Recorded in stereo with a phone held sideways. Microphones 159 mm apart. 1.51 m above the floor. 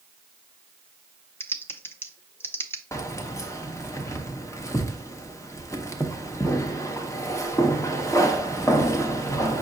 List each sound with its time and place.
1.4 s typing on a keyboard: 15° left (ahead or behind), 0.5 m
2.9 s keys jangling: 20° left (ahead or behind), 0.7 m